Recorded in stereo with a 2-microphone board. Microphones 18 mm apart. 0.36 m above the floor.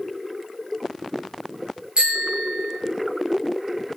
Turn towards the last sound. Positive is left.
turn(degrees=-75)  # may be behind; listen again after turning